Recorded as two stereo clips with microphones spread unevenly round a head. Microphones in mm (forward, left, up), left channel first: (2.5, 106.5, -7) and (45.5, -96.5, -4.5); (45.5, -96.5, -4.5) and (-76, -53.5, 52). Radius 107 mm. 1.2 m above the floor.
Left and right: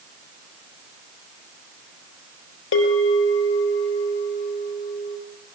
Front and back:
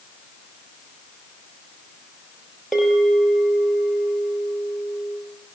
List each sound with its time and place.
2.7 s a bell: 75° left, 5 m